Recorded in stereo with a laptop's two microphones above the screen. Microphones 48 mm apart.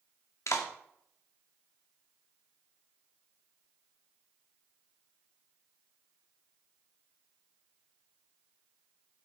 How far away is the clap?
About 2.0 m.